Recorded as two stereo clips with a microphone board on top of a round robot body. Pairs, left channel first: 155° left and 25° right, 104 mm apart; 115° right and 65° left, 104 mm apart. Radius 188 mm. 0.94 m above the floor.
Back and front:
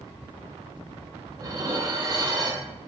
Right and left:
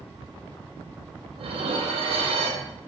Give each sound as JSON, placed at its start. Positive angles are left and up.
{"t": 1.4, "sound": "dishes clattering", "azimuth_deg": 35, "distance_m": 0.6}